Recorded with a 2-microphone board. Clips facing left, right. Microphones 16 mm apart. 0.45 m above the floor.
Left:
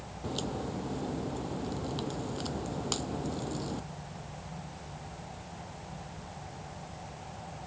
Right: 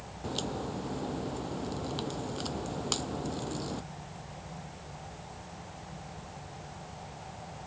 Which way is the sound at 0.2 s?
10° right (ahead or behind).